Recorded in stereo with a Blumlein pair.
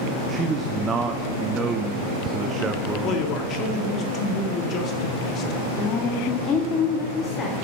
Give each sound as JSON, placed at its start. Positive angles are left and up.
{"t": 0.3, "sound": "a man speaking", "azimuth_deg": -20, "distance_m": 0.9}
{"t": 3.0, "sound": "a man speaking", "azimuth_deg": 30, "distance_m": 2.5}
{"t": 5.8, "sound": "a woman speaking", "azimuth_deg": 20, "distance_m": 2.0}